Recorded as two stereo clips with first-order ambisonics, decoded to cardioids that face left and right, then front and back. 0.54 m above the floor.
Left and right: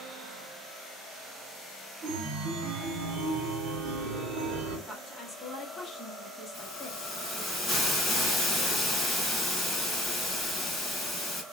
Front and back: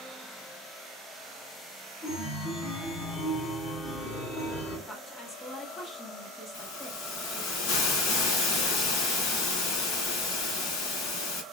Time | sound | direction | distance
2.0 | a chime | 60° right | 0.9 m
4.9 | a woman speaking | 45° left | 0.8 m
6.5 | a hiss | 15° left | 2.0 m